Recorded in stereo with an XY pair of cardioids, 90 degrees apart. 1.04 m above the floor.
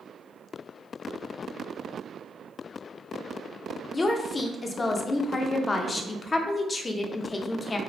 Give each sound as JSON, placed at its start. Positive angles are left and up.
{"t": 3.9, "sound": "a woman speaking", "azimuth_deg": 35, "distance_m": 0.5}